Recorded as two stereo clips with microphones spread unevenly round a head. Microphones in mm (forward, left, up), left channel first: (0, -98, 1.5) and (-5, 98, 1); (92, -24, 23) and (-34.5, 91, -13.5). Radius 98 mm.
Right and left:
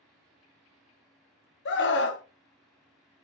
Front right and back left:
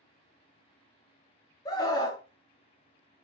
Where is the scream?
100° right, 0.5 m.